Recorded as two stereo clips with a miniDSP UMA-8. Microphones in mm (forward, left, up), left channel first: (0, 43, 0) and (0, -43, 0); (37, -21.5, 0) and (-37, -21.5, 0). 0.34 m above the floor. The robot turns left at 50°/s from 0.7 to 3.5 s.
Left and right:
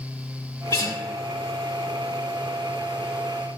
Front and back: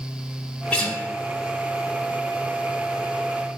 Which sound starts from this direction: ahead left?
A guitar, at 0.7 s.